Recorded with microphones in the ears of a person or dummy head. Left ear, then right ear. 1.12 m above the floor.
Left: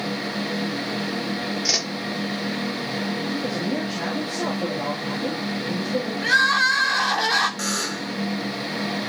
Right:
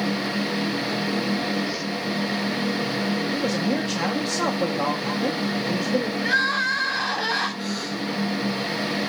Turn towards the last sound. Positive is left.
turn(degrees=50)  # may be behind; listen again after turning